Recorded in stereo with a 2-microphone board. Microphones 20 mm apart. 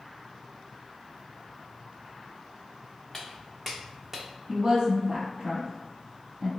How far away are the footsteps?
About 1.1 m.